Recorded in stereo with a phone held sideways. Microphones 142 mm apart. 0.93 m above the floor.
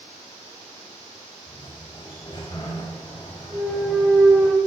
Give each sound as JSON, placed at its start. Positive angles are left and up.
{"t": 1.5, "sound": "a sliding door", "side_deg": 35, "distance_m": 4.5}
{"t": 3.5, "sound": "a clunk", "side_deg": -5, "distance_m": 2.5}